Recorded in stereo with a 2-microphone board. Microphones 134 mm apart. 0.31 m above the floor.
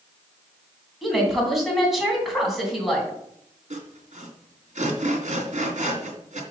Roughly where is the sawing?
Right.